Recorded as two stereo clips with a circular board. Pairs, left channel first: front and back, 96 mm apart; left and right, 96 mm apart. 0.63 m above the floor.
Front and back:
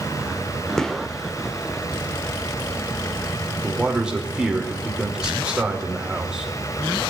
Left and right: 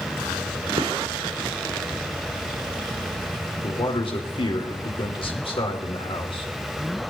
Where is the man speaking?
100° left, 2 m.